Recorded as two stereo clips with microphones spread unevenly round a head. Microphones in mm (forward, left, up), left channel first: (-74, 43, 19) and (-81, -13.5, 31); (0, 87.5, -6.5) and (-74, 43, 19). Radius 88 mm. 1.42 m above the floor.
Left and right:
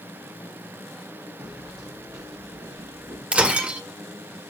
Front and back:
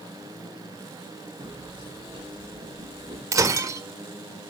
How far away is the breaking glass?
About 1.5 m.